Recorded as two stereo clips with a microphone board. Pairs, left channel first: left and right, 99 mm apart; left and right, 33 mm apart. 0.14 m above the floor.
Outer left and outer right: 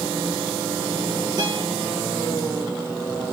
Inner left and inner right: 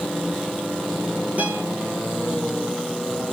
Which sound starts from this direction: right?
A guitar, at 1.4 s.